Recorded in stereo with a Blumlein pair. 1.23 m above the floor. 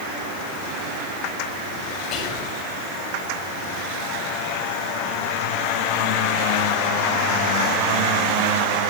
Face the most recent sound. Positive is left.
turn(degrees=40)